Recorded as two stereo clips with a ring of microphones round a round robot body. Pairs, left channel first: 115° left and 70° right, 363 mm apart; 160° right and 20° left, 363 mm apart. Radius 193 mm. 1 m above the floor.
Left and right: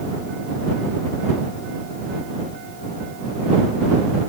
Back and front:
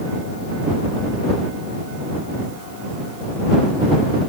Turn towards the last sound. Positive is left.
No sound to turn to.